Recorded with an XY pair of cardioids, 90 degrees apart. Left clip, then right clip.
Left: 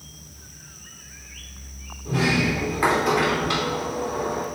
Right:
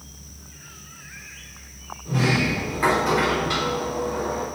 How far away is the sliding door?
About 2.5 m.